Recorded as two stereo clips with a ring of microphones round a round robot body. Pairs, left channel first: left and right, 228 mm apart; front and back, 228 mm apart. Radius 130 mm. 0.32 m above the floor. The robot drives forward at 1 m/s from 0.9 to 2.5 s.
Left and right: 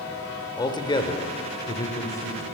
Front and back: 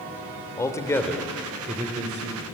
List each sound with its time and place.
0.6 s a man speaking: 55° left, 1.0 m; by 2.4 s 165° left, 1.7 m